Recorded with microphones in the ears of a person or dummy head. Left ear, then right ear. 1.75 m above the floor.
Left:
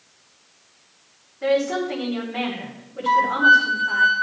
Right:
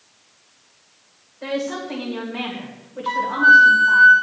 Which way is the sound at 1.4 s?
10° left (ahead or behind).